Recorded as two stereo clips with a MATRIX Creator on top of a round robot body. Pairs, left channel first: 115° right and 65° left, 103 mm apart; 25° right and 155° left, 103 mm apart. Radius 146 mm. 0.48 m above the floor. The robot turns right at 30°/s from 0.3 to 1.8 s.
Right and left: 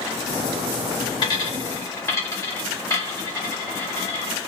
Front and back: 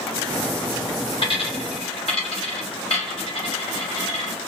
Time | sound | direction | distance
1.2 | a dropped coin | 65° right | 1.0 m